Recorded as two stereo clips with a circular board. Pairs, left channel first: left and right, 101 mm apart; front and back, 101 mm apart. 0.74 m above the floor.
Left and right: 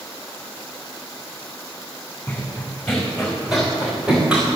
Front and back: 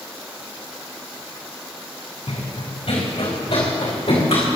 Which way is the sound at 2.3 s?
10° left.